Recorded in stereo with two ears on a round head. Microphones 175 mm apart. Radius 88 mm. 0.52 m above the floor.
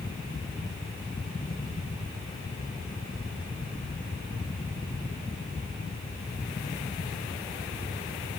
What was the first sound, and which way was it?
Only background noise.